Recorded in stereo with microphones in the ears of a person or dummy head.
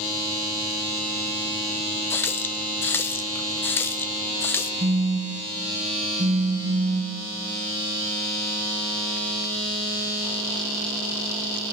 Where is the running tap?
10° left (ahead or behind), 0.6 m.